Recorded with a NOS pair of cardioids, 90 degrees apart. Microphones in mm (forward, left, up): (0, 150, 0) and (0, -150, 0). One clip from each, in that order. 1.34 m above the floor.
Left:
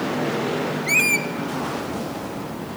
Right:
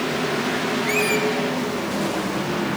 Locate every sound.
0.9 s a squeak: 40° left, 0.7 m